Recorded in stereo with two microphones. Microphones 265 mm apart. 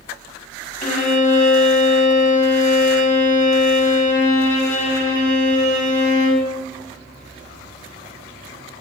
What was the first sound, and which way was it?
A violin, 30° left (ahead or behind).